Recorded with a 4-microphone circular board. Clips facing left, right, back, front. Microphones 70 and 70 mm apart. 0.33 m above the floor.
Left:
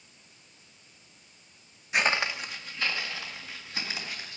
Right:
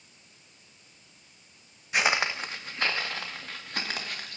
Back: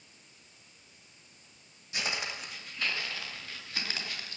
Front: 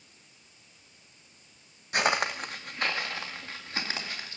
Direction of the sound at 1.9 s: Straight ahead.